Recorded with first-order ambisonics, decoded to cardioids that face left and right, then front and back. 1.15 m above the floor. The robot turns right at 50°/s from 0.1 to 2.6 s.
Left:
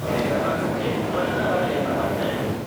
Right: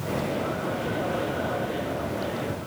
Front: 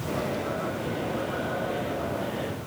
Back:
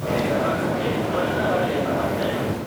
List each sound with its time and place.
Only background noise.